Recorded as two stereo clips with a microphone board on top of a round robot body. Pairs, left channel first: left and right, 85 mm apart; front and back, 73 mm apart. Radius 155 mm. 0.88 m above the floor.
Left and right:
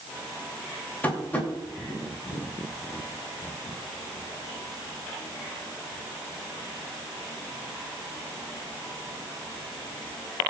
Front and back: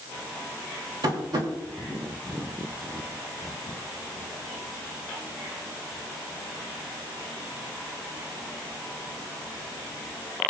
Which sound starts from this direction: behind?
Tapping, at 1.0 s.